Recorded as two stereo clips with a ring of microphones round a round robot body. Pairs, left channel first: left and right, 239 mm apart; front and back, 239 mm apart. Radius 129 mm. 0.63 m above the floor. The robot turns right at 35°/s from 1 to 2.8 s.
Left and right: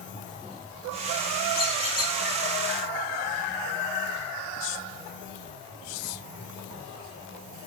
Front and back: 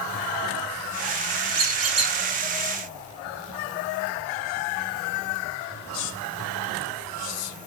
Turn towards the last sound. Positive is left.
turn(degrees=-170)